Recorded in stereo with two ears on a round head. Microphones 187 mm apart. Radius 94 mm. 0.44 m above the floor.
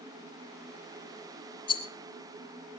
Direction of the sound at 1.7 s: 25° left (ahead or behind).